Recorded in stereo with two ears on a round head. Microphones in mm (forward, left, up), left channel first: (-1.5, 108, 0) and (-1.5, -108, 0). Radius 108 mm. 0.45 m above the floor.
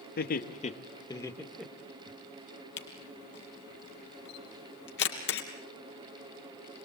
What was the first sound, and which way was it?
Laughter, 40° left (ahead or behind).